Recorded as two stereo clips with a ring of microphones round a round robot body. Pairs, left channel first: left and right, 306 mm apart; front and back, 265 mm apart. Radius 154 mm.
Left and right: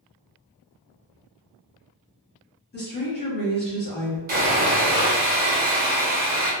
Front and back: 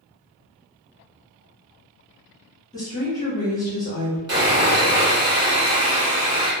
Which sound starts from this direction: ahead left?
A woman speaking, at 2.7 s.